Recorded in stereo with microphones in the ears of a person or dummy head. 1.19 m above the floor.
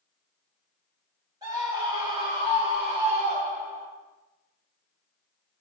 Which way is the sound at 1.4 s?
20° right (ahead or behind).